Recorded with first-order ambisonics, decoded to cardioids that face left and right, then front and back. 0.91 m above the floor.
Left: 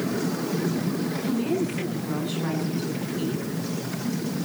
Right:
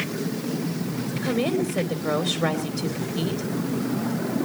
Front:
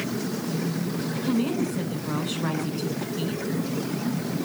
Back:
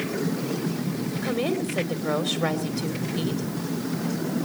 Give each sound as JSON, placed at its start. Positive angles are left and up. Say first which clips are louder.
{"t": 1.2, "sound": "a woman speaking", "louder": "right 4 dB, back 1 dB", "azimuth_deg": -135, "distance_m": 2.5}